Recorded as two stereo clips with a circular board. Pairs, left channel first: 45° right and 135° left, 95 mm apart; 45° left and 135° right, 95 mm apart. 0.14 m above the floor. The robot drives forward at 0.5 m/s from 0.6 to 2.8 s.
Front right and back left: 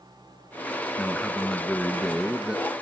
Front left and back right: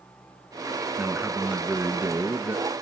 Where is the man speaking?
80° right, 1.4 m; by 2.7 s 150° right, 1.6 m.